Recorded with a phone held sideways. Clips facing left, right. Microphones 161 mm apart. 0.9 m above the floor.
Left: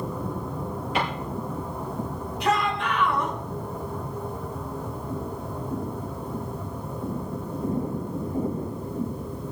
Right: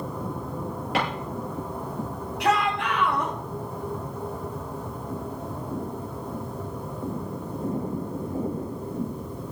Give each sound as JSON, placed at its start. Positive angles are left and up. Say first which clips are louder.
{"t": 0.9, "sound": "a drawer", "louder": "right 1 dB", "side_deg": -75, "distance_m": 8.0}
{"t": 2.4, "sound": "a shout", "louder": "right 1 dB", "side_deg": -75, "distance_m": 5.5}